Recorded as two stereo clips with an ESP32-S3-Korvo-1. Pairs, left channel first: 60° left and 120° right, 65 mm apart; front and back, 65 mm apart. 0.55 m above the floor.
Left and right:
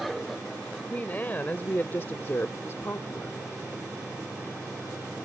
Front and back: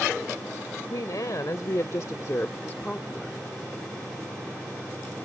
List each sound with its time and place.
0.9 s a woman speaking: straight ahead; by 3.4 s 90° left